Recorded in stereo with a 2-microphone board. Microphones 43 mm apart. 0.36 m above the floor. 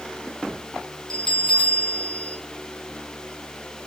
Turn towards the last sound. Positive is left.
turn(degrees=20)  # may be behind; listen again after turning